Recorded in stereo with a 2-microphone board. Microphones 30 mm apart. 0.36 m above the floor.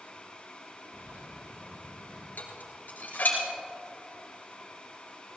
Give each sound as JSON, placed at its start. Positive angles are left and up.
{"t": 0.9, "sound": "a bird", "side_deg": -80, "distance_m": 3.5}
{"t": 2.4, "sound": "dishes clattering", "side_deg": 80, "distance_m": 3.5}